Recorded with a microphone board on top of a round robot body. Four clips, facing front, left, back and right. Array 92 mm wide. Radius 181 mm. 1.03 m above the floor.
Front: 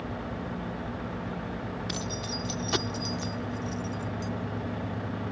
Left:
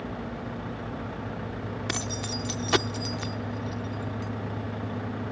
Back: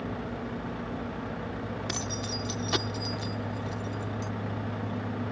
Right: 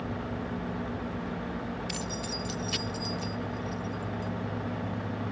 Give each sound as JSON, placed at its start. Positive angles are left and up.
{"t": 1.9, "sound": "keys jangling", "azimuth_deg": 95}